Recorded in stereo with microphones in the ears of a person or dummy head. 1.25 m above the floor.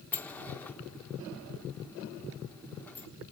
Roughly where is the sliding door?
Centre.